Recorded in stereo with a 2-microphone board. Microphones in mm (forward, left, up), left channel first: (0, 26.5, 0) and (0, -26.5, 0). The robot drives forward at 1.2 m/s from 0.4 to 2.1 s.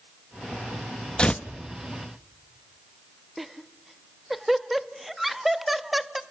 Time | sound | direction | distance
1.2 | tearing paper | 20° left (ahead or behind) | 0.8 m
3.4 | laughter | 5° right (ahead or behind) | 0.9 m